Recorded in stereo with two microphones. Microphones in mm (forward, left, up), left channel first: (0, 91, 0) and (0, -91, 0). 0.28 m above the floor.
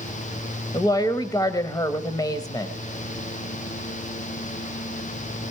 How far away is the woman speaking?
About 1.1 m.